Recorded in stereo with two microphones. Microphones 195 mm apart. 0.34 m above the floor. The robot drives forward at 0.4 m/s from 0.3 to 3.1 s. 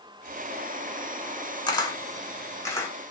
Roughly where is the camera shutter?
Centre.